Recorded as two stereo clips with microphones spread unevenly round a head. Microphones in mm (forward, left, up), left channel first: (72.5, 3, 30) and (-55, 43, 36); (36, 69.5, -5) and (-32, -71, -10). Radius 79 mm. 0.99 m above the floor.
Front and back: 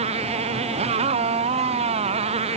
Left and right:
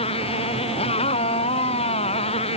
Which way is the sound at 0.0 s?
120° left.